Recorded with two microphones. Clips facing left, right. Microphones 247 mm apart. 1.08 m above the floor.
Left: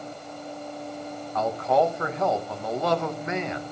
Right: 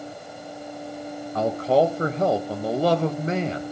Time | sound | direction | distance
1.4 | a man speaking | 35° right (ahead or behind) | 1.2 m